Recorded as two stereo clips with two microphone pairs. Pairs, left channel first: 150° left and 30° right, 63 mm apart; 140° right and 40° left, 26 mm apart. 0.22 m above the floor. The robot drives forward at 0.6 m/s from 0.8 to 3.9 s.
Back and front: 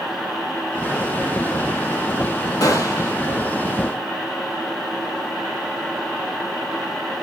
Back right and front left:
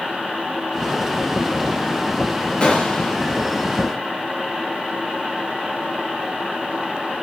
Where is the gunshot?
175° left, 4 m.